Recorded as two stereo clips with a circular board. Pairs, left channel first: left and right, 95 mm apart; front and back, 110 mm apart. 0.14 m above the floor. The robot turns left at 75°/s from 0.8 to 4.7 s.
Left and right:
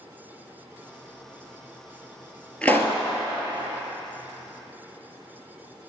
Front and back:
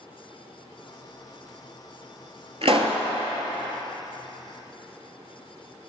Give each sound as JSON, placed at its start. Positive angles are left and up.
{"t": 2.6, "sound": "a pop", "azimuth_deg": 165, "distance_m": 0.8}